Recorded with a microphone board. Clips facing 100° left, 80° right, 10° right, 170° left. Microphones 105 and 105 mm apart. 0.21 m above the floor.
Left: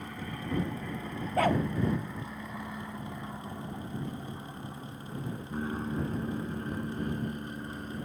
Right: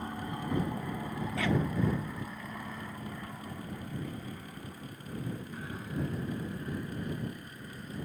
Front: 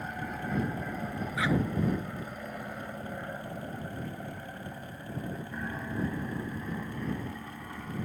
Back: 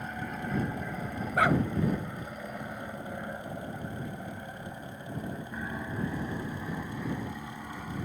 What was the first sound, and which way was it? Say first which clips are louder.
An aircraft: right 2 dB, even; 95° right.